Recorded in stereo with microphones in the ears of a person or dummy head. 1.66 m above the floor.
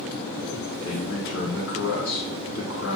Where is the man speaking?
75° left (ahead or behind), 3.5 m.